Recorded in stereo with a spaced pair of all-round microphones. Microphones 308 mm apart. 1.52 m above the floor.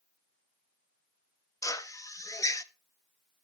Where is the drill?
10° left (ahead or behind), 0.5 m.